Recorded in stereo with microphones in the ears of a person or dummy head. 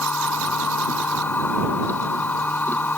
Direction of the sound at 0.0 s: 5° left (ahead or behind).